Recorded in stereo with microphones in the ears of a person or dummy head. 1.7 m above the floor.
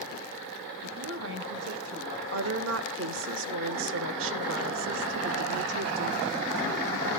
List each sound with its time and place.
0.8 s a woman speaking: 70° right (ahead or behind), 3 m; by 2.2 s 30° right (ahead or behind), 1.8 m
2.3 s a woman speaking: 65° right (ahead or behind), 1.2 m